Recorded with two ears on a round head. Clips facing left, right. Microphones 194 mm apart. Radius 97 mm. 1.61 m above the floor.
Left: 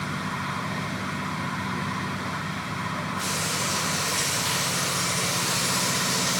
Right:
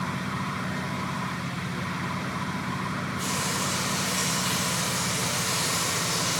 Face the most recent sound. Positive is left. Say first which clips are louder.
# right 1 dB
turn(degrees=5)  # may be behind; listen again after turning